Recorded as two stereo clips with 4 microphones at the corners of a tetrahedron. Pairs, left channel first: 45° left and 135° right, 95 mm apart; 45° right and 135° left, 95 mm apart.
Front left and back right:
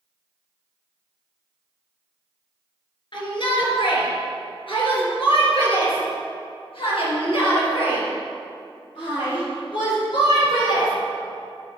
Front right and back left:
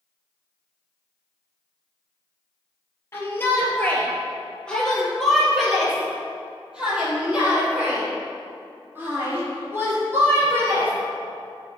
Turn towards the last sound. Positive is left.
turn(degrees=75)